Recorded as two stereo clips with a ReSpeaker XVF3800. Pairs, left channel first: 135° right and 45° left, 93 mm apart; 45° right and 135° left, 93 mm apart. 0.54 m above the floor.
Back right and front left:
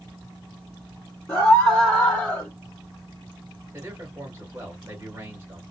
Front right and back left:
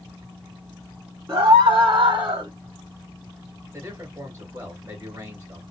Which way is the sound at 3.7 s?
90° left.